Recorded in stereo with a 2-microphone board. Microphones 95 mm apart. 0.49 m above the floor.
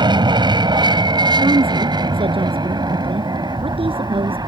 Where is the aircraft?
55° right (ahead or behind); by 4.5 s 45° right (ahead or behind).